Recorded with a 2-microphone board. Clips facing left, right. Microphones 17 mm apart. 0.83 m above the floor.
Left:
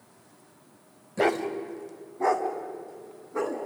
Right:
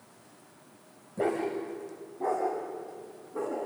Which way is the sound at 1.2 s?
80° left.